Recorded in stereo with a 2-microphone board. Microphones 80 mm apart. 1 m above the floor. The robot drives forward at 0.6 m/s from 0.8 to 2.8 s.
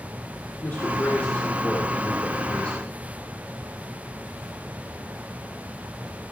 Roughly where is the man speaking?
Left.